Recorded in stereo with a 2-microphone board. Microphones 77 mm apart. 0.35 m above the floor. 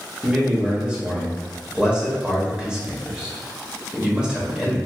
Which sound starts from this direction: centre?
A man speaking, at 0.2 s.